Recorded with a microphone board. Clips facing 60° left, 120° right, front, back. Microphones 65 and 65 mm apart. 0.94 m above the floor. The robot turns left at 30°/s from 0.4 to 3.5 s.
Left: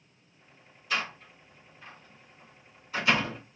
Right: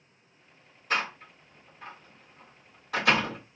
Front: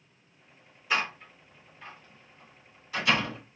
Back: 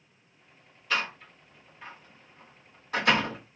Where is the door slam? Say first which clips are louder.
Right 3 dB, front 1 dB; 75° right, 1.7 m; by 3.4 s 150° right, 1.7 m.